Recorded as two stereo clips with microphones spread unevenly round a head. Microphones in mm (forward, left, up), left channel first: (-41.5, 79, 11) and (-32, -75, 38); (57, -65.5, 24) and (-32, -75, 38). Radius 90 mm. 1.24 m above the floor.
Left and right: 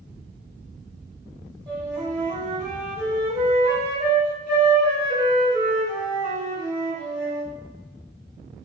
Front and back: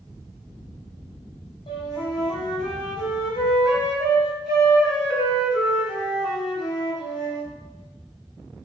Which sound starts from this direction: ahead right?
A flute, at 1.7 s.